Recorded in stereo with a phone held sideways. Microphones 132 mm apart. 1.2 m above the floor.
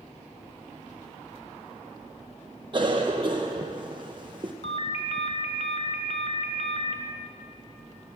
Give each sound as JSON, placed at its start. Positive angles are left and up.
{"t": 2.7, "sound": "a cough", "side_deg": -40, "distance_m": 0.6}
{"t": 4.6, "sound": "a ringtone", "side_deg": 55, "distance_m": 1.2}